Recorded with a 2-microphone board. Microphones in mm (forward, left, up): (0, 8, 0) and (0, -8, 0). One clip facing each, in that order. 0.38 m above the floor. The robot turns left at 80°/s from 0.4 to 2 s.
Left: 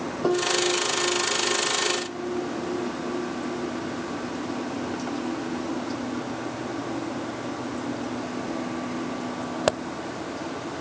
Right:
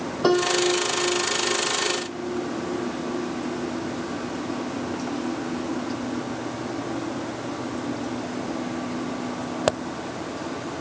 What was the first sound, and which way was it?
A piano, 75° right.